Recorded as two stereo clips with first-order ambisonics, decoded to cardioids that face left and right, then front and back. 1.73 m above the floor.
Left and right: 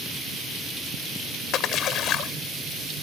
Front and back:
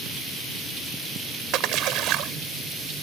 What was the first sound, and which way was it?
A splash, 140° left.